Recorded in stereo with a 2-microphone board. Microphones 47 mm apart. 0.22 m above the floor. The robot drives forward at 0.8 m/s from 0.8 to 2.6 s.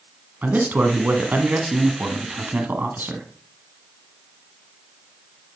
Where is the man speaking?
35° right (ahead or behind), 1.8 m; by 3.3 s 40° right (ahead or behind), 1.6 m.